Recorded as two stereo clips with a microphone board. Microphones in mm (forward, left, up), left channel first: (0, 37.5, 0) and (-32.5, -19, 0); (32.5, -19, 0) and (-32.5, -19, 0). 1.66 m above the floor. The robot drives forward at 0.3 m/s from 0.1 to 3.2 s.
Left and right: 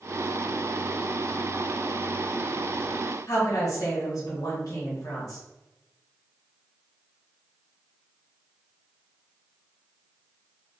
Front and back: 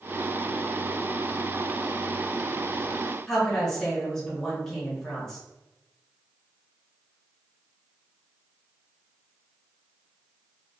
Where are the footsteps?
No footsteps in this recording.